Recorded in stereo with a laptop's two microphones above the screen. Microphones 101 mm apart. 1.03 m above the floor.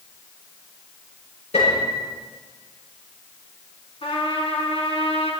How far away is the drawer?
No drawer in this recording.